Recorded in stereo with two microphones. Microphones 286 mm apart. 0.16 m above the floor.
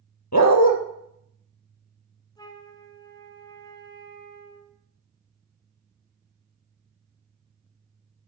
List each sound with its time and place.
0.3 s a dog barking: 75° left (ahead or behind), 1.1 m
2.4 s a flute: 15° left (ahead or behind), 1.1 m